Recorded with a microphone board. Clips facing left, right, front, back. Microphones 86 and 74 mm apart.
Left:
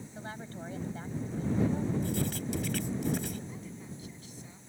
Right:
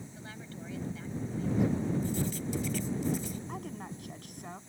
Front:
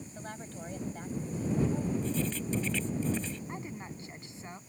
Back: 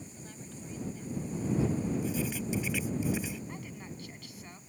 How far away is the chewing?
No chewing in this recording.